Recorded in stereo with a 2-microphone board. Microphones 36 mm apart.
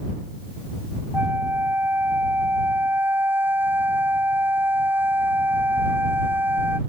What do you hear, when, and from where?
1.1 s a flute: 80° right